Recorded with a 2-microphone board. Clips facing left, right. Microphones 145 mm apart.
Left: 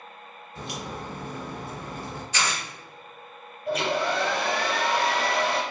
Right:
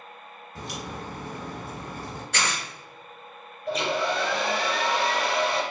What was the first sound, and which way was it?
A crack, 45° right (ahead or behind).